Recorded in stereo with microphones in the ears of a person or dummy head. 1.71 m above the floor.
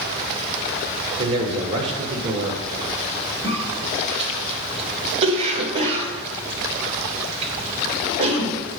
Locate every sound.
1.2 s a man speaking: 30° right (ahead or behind), 1.4 m
3.4 s a cough: 35° right (ahead or behind), 1.5 m